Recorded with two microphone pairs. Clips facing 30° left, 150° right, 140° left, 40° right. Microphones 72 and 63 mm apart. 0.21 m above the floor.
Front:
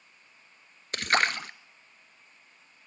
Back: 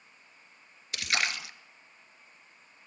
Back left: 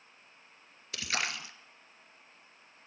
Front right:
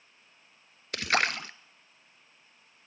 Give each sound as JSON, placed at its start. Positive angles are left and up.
{"t": 0.9, "sound": "a splash", "azimuth_deg": -15, "distance_m": 0.5}